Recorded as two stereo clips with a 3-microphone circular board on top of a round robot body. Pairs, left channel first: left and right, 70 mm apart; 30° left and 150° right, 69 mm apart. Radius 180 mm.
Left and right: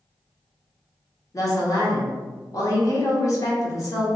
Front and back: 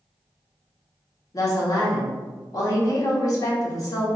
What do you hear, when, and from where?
1.3 s a woman speaking: 55° left, 1.6 m